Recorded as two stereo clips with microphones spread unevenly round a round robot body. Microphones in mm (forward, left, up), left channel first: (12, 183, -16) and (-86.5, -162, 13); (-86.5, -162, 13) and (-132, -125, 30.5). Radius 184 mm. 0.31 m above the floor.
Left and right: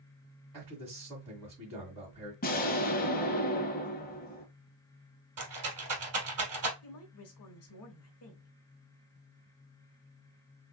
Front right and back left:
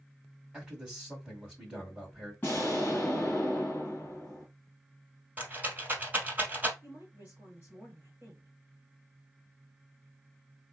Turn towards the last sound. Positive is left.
turn(degrees=65)